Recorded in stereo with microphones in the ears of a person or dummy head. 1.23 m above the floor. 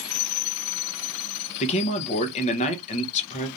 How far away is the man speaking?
About 1.0 m.